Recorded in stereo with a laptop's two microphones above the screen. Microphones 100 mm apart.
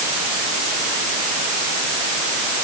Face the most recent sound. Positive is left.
No sound to turn to.